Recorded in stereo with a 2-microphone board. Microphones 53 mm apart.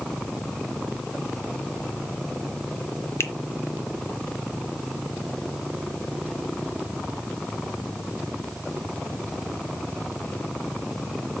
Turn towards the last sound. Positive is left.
turn(degrees=60)  # may be behind; listen again after turning